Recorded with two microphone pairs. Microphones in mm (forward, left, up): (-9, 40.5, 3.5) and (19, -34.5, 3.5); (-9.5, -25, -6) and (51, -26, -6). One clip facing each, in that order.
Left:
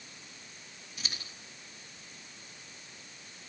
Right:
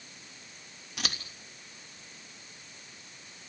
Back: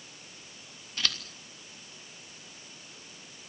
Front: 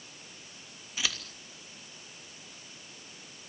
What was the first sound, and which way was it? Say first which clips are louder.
Scissors: right 7 dB, even; 85° right.